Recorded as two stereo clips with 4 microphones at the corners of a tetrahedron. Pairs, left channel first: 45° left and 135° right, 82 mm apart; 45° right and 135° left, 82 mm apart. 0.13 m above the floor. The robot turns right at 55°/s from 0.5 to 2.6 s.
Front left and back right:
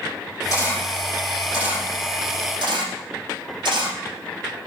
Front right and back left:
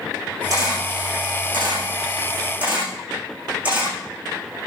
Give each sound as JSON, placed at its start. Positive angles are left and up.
{"t": 0.5, "sound": "a camera shutter", "azimuth_deg": 95, "distance_m": 6.0}